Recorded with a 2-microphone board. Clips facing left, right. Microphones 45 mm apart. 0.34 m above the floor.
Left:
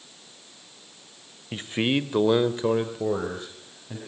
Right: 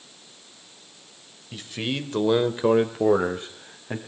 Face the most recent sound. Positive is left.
turn(degrees=-45)  # may be behind; listen again after turning